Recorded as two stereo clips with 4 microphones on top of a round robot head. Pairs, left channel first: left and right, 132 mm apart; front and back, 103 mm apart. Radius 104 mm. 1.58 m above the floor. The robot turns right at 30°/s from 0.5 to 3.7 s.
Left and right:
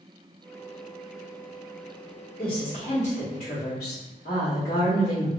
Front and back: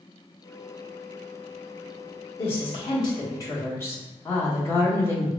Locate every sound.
2.4 s a woman speaking: 25° left, 1.0 m; by 5.3 s 60° left, 1.0 m